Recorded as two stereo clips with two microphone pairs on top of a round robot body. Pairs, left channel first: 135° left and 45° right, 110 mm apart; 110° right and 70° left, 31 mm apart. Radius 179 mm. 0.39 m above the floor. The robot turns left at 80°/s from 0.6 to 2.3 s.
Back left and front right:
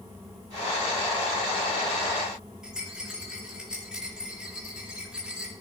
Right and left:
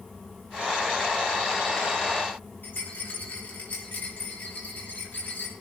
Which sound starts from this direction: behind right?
A rattle, at 2.6 s.